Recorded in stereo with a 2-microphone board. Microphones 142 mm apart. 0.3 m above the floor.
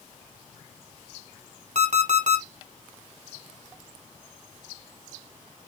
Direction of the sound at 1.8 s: 60° right (ahead or behind).